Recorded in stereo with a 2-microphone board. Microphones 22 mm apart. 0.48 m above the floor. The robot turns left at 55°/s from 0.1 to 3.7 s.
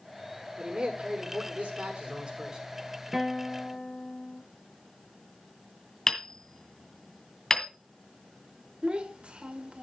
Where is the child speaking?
55° right (ahead or behind), 1.4 m.